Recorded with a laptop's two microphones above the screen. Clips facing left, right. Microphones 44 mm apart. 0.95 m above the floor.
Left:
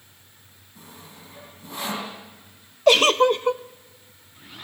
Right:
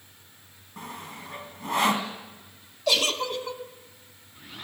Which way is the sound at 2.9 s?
50° left (ahead or behind).